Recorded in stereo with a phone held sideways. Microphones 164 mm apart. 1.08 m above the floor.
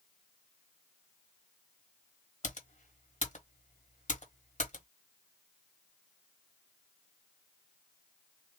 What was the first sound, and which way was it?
Typing on a keyboard, 50° left (ahead or behind).